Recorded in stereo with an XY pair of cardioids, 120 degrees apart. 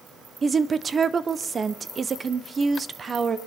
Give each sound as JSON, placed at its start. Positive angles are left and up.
{"t": 0.4, "sound": "a woman speaking", "azimuth_deg": -35, "distance_m": 0.8}